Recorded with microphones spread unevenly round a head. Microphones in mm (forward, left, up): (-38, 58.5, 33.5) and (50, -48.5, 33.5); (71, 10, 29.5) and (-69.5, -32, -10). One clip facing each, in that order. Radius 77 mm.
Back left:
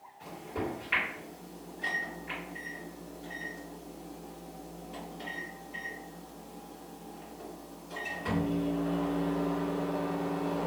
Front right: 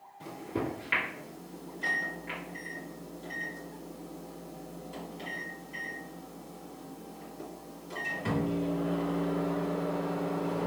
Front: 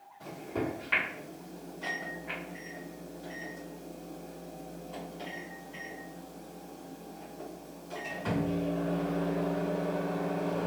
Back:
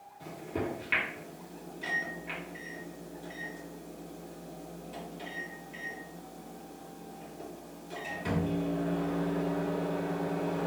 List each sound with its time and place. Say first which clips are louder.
0.2 s a microwave: front right 2 dB, front 1 dB; 80° right, 1.6 m